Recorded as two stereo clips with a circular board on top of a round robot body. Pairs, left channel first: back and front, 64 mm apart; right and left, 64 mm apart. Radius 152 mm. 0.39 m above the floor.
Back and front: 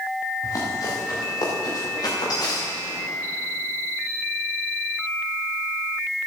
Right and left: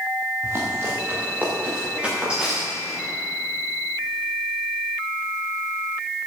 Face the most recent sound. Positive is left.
turn(degrees=170)